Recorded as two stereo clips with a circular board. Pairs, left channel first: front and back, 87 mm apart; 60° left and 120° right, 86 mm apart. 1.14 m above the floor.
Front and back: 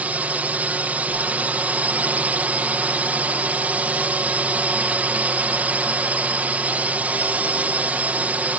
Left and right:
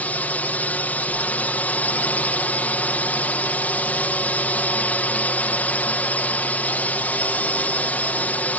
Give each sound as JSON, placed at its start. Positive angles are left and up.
{"t": 0.0, "sound": "a drone", "azimuth_deg": 120}